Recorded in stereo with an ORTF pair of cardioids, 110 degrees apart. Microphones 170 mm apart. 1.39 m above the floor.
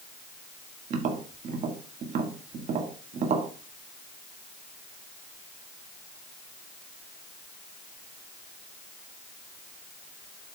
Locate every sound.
0.9 s tapping: 55° right, 1.7 m